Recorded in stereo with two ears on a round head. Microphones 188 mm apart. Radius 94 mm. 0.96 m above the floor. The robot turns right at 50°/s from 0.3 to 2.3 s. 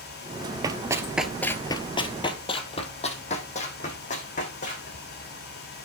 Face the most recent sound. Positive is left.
turn(degrees=40)  # may be behind; listen again after turning